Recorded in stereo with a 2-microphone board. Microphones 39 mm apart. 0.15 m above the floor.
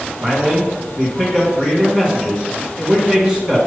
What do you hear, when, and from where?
0.2 s a man speaking: 20° right (ahead or behind), 1.7 m